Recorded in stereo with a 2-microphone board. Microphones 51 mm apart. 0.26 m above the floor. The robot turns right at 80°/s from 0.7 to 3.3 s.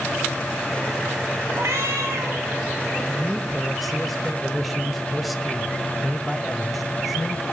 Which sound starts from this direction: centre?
A man speaking, at 3.1 s.